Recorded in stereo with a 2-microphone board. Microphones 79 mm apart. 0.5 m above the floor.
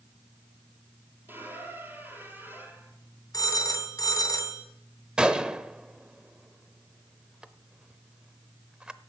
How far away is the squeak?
About 3.5 m.